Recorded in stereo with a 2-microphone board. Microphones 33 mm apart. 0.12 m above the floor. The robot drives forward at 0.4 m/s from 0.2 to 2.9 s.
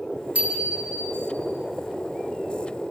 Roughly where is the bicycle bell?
Right.